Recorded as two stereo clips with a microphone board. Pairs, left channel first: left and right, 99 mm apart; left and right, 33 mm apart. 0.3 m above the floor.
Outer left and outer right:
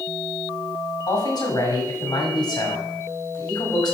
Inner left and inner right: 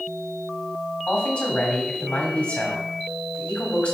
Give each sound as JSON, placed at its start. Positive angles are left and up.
{"t": 1.1, "sound": "a man speaking", "side_deg": 45, "distance_m": 2.0}